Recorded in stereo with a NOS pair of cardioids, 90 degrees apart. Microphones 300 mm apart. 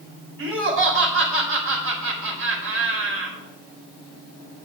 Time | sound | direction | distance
0.4 | laughter | 45° right | 4.5 m